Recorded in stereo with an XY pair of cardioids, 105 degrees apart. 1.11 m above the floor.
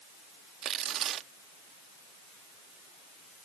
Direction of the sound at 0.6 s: 70° right.